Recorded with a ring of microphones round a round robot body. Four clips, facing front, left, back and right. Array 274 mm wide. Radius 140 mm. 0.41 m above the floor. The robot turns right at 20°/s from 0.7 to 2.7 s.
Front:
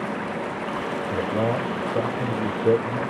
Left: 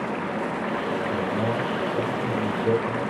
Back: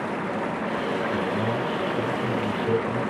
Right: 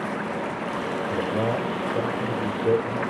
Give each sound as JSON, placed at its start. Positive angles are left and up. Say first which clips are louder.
{"t": 1.1, "sound": "a man speaking", "louder": "right 3 dB, front 2 dB", "azimuth_deg": -35, "distance_m": 2.0}